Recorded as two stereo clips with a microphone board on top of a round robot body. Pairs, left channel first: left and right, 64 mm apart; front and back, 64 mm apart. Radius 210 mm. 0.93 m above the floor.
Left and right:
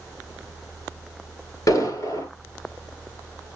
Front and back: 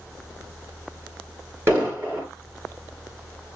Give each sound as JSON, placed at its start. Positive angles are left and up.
{"t": 1.7, "sound": "an explosion", "azimuth_deg": 125, "distance_m": 7.0}